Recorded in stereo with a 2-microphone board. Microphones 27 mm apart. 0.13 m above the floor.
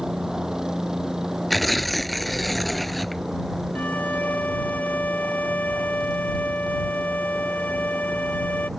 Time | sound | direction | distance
0.0 | a helicopter | 25° right (ahead or behind) | ?
1.5 | tearing paper | 5° left (ahead or behind) | ?
3.8 | a violin | 80° left | ?